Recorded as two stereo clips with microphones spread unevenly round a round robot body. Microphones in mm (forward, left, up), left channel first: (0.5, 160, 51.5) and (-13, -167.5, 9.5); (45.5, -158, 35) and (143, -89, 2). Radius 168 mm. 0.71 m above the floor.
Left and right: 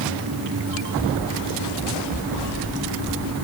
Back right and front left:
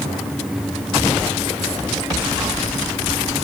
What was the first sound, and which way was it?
Only background noise.